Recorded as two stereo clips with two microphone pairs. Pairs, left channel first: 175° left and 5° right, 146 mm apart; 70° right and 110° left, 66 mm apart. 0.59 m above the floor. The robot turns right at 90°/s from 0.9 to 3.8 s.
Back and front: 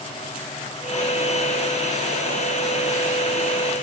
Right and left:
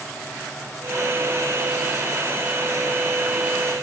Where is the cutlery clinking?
I don't hear cutlery clinking.